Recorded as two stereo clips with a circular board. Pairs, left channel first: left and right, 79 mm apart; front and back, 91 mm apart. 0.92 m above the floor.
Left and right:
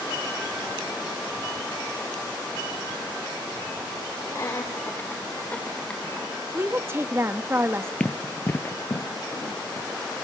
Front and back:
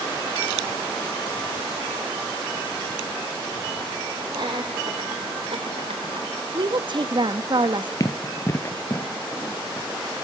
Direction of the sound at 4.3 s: 140° left.